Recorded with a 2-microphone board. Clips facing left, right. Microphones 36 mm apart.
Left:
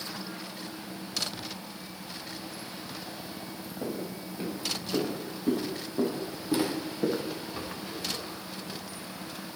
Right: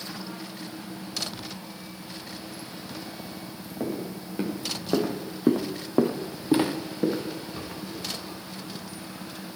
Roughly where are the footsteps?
Right.